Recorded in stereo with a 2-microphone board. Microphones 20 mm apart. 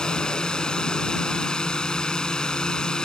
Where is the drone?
40° left (ahead or behind).